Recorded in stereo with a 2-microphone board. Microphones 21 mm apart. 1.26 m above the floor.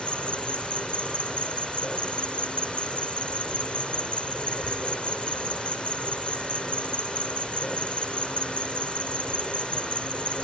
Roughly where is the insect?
Left.